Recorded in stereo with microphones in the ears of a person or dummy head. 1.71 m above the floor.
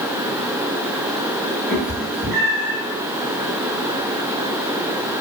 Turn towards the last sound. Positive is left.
turn(degrees=-15)  # may be behind; listen again after turning